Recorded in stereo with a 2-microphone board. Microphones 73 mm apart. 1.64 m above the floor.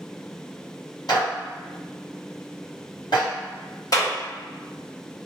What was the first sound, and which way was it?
A clap, 70° left (ahead or behind).